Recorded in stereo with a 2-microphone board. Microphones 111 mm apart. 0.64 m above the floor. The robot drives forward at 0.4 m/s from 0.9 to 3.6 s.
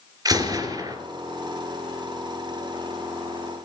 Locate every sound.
0.2 s a gunshot: 35° right (ahead or behind), 2 m